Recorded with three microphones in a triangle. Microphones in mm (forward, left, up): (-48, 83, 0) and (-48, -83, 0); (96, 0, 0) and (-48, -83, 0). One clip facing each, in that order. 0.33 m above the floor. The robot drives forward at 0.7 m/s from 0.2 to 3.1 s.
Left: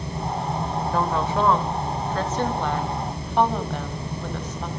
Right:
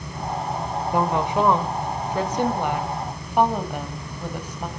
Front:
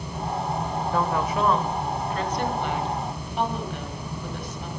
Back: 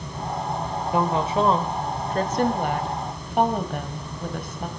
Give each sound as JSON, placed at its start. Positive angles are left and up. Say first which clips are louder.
{"t": 0.9, "sound": "a woman speaking", "louder": "right 3 dB, back 4 dB", "azimuth_deg": -125, "distance_m": 1.4}